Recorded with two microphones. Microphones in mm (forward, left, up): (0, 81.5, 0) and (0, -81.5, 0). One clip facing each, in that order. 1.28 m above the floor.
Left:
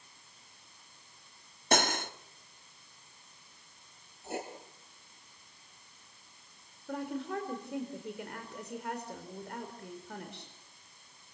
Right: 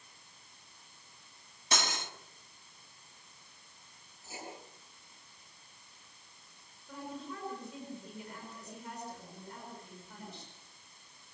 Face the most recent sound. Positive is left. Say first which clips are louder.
# left 7 dB
turn(degrees=75)  # may be behind; listen again after turning